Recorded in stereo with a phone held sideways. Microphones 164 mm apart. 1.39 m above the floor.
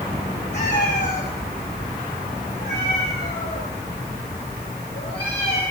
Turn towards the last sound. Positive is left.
turn(degrees=70)  # may be behind; listen again after turning